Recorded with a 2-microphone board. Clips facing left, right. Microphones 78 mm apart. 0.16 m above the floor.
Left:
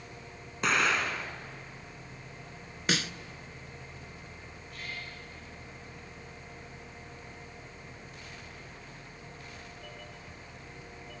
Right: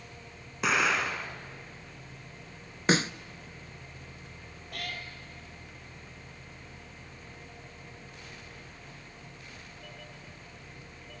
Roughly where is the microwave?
I don't hear a microwave.